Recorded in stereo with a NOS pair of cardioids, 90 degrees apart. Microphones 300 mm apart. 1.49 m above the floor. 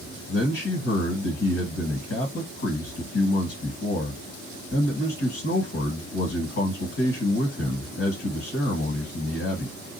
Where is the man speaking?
45° left, 1.5 m.